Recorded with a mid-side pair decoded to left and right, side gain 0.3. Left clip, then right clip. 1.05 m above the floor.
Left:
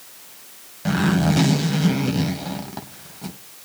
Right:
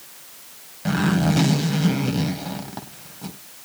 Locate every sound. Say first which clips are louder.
0.8 s a zipper: left 1 dB; 15° left, 2.5 m